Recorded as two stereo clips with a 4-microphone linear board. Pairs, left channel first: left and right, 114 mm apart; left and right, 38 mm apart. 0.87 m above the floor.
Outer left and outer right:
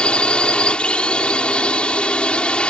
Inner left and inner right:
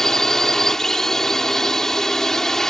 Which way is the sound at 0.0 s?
10° left (ahead or behind).